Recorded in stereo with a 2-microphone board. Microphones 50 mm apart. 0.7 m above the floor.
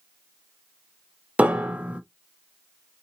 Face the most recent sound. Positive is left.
turn(degrees=-30)  # may be behind; listen again after turning